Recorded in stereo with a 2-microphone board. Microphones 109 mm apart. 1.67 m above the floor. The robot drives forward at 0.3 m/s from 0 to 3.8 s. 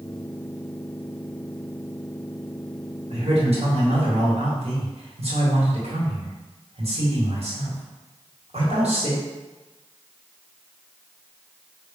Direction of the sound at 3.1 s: 65° right (ahead or behind).